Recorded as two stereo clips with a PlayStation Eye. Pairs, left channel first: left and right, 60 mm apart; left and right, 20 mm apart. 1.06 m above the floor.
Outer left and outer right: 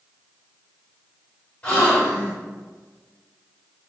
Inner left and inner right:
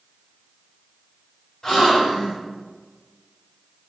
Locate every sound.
1.6 s a gasp: 30° left (ahead or behind), 1.3 m